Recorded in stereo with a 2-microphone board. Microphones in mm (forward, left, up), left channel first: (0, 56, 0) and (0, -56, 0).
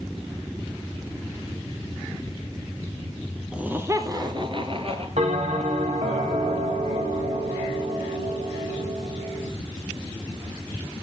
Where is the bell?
85° right, 4.5 m.